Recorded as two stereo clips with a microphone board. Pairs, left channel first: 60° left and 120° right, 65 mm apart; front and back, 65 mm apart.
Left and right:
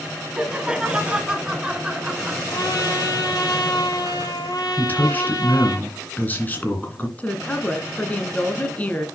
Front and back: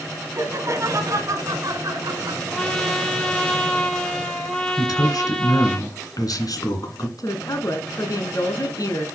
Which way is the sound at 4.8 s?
Straight ahead.